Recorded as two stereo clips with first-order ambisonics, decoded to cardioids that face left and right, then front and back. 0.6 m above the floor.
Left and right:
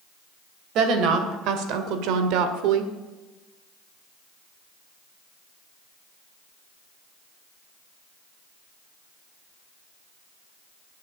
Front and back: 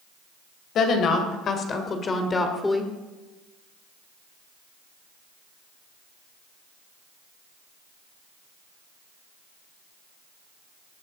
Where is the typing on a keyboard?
No typing on a keyboard in this recording.